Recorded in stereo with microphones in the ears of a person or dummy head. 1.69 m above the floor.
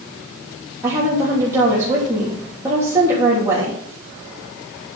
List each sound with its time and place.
0.8 s a woman speaking: 15° right (ahead or behind), 3 m